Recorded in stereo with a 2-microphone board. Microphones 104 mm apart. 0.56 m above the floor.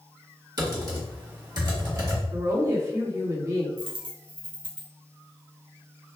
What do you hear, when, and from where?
0.6 s typing on a keyboard: 40° right (ahead or behind), 1.5 m
2.3 s a woman speaking: 35° right (ahead or behind), 1.4 m
3.8 s a dropped coin: 70° right (ahead or behind), 1.0 m